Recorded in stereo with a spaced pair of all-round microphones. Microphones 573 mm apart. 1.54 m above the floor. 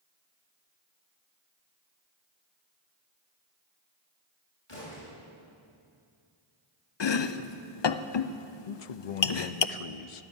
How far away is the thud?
About 6.5 m.